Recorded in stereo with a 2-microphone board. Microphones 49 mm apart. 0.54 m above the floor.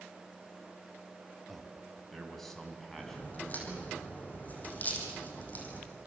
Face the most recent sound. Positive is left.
turn(degrees=35)  # may be behind; listen again after turning